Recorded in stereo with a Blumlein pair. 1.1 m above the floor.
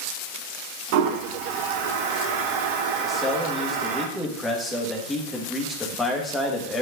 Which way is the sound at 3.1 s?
10° left.